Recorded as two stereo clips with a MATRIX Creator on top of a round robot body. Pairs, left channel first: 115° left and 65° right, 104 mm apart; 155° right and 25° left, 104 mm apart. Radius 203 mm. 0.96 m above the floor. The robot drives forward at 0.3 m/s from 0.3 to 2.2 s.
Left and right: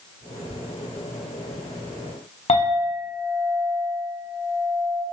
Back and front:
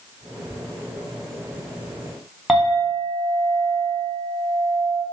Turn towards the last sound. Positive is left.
turn(degrees=110)